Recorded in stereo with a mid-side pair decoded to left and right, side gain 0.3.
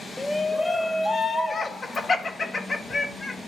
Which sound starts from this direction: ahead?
A shout, at 0.2 s.